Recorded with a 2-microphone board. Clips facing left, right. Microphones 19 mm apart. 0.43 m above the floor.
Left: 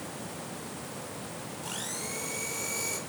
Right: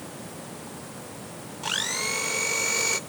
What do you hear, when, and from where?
1.6 s a blender: 45° right (ahead or behind), 0.7 m